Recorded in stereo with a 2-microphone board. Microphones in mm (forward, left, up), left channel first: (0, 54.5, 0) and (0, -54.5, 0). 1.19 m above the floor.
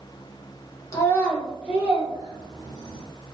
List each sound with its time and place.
0.9 s a child speaking: 30° left (ahead or behind), 1.0 m; by 3.0 s 45° right (ahead or behind), 2 m